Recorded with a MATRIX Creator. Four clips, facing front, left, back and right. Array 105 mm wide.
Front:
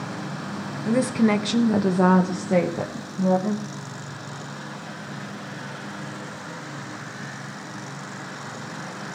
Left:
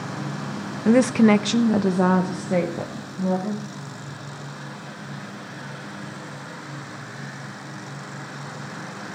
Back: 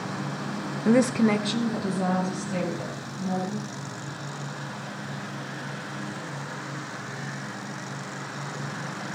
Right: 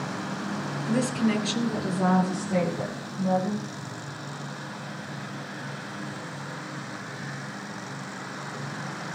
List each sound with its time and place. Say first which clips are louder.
0.8 s a woman speaking: left 10 dB, even; 115° left, 1.0 m; by 3.6 s 25° left, 3.5 m